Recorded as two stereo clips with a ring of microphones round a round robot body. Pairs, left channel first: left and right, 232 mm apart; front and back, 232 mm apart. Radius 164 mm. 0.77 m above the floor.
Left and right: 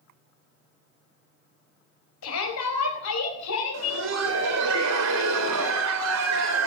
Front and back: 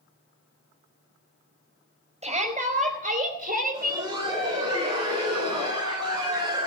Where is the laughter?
105° right, 3 m.